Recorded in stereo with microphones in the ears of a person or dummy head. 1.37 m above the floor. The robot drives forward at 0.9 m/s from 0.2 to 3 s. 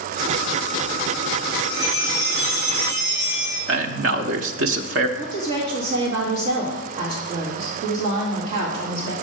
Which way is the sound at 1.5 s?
25° right (ahead or behind).